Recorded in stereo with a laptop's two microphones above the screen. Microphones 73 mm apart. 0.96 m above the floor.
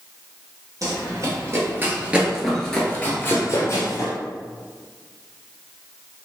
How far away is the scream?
I don't hear a scream.